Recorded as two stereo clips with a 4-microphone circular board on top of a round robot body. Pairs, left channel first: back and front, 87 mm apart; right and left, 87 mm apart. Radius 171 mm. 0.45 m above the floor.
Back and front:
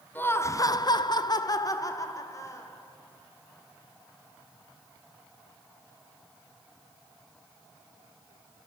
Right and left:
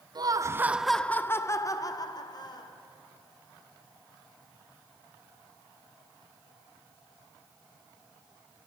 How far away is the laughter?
About 1.2 m.